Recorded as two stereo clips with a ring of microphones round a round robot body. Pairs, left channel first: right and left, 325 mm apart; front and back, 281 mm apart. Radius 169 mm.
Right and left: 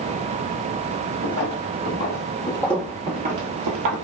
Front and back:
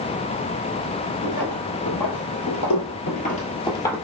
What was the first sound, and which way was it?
Footsteps, 45° right.